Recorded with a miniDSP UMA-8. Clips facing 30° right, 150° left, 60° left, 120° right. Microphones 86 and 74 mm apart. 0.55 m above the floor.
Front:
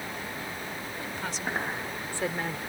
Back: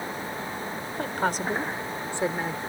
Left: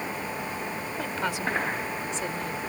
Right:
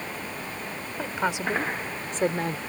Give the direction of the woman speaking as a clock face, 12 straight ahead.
7 o'clock.